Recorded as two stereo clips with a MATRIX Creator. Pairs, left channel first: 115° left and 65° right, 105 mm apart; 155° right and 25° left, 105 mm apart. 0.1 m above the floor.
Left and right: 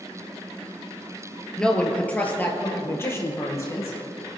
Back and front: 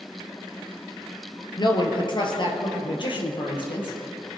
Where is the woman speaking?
165° right, 1.6 m; by 4.0 s 170° left, 3 m.